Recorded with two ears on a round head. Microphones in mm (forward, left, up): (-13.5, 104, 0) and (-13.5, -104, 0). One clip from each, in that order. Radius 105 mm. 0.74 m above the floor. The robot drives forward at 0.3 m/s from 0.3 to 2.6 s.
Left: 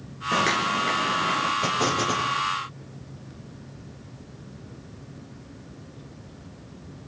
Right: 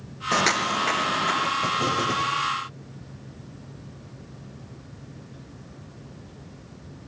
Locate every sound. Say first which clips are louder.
0.3 s footsteps: right 1 dB; 50° right (ahead or behind), 2.5 m; by 1.5 s 35° right (ahead or behind), 4.5 m
1.6 s an explosion: even; 30° left (ahead or behind), 7.5 m